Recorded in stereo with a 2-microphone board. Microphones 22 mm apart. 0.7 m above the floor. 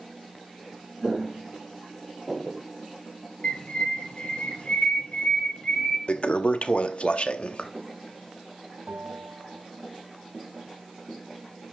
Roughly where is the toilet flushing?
Left.